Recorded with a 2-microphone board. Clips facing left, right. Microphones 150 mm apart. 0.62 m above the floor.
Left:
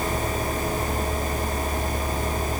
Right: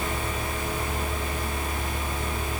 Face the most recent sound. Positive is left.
No sound to turn to.